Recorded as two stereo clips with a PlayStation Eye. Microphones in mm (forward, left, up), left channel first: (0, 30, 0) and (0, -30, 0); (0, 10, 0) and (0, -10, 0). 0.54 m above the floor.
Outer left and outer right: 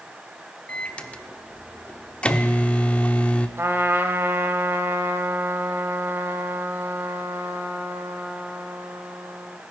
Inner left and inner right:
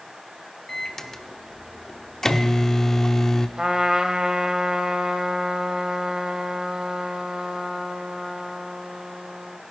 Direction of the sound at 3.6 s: 40° right (ahead or behind).